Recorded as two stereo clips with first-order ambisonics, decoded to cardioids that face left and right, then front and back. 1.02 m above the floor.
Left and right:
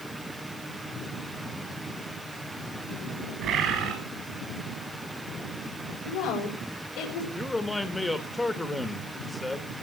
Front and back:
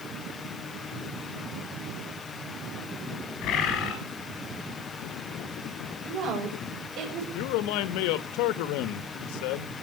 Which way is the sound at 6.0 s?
135° left.